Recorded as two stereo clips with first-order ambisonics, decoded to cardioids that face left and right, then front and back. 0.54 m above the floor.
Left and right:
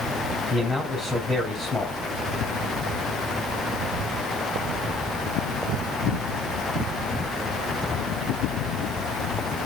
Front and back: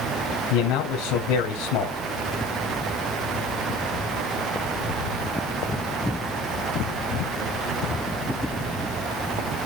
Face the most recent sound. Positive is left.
turn(degrees=15)